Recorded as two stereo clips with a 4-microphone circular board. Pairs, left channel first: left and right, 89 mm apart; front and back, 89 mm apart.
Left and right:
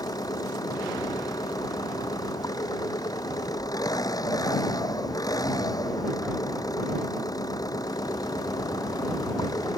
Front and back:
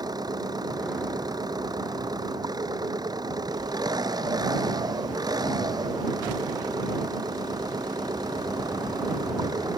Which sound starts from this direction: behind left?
An engine running, at 0.0 s.